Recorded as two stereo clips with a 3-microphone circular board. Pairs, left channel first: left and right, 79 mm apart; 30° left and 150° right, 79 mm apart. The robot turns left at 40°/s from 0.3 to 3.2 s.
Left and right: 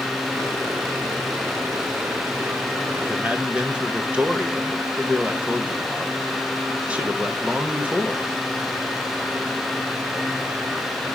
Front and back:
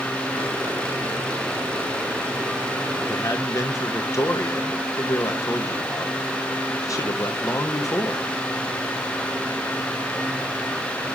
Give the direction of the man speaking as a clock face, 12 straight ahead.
12 o'clock.